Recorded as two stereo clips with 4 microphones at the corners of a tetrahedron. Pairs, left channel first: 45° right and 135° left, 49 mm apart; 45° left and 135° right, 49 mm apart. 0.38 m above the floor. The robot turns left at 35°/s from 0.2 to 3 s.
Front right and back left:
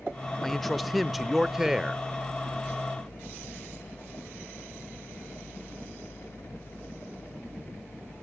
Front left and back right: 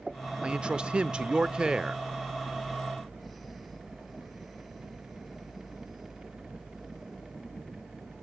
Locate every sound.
0.4 s a man speaking: 125° right, 0.8 m; by 2.0 s straight behind, 0.8 m